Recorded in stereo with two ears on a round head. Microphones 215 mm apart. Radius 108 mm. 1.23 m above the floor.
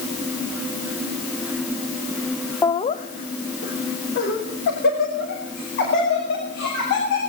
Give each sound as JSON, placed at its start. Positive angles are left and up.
{"t": 2.6, "sound": "laughter", "side_deg": 10, "distance_m": 0.6}